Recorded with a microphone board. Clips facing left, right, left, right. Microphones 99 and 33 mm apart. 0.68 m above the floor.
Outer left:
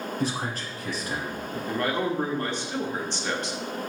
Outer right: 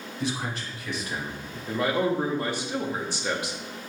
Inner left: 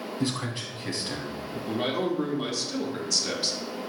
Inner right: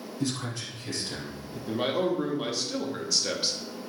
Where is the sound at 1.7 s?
5° right (ahead or behind), 0.7 m.